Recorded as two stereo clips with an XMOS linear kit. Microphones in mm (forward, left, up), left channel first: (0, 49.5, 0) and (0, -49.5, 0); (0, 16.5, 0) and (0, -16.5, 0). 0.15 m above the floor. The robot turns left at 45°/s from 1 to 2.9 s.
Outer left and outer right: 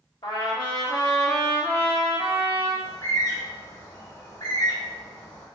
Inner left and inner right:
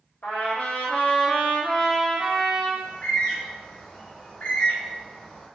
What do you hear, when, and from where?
0.2 s a trumpet: 50° left, 0.9 m; by 2.7 s 25° right, 0.9 m
2.8 s a bird: 35° left (ahead or behind), 1.1 m; by 5.5 s 40° left (ahead or behind), 1.1 m